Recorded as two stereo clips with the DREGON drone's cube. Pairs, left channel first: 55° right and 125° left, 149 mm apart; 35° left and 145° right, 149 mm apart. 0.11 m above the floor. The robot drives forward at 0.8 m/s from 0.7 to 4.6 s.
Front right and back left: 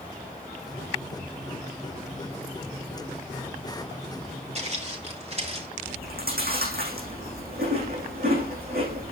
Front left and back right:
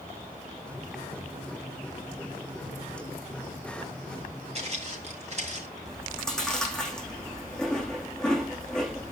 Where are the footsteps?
170° left, 4 m.